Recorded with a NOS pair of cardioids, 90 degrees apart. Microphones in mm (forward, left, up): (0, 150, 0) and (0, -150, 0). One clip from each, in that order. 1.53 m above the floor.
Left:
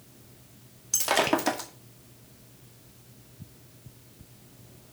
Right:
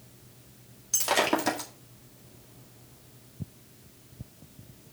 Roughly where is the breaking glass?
Ahead.